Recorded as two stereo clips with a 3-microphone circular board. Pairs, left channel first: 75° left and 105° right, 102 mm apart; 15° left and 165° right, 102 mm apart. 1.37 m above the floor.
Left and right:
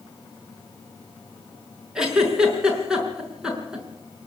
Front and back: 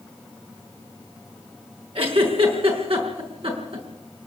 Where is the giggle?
175° left, 5.5 m.